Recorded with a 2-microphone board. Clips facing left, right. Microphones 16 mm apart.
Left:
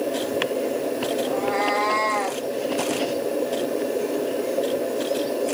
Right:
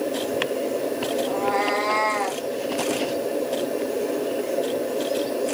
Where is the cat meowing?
Centre (ahead or behind), 1.3 m.